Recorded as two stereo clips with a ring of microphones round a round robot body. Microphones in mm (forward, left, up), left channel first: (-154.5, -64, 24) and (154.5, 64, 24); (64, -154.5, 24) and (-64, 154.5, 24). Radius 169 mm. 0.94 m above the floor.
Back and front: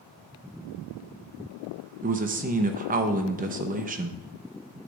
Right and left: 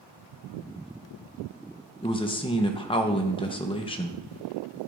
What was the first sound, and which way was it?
A man speaking, 10° right.